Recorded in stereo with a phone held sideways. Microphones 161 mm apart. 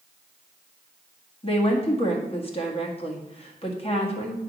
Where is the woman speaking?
40° left (ahead or behind), 1.7 m.